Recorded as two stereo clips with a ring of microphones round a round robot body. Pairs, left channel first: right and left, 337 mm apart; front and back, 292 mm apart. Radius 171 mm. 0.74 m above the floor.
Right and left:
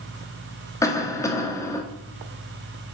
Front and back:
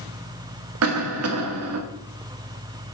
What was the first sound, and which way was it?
A cough, 170° right.